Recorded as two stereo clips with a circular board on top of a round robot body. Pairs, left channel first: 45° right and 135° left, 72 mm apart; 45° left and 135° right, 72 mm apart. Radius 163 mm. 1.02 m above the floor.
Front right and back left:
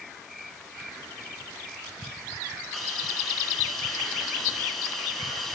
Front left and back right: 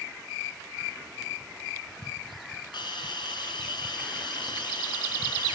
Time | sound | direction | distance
2.7 | a hiss | 45° left | 5.5 m